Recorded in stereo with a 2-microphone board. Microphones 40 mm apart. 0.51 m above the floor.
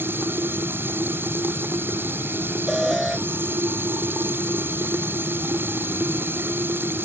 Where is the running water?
60° right (ahead or behind).